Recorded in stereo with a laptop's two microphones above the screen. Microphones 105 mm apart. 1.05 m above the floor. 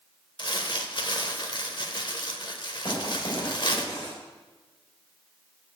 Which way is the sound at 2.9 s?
45° left (ahead or behind).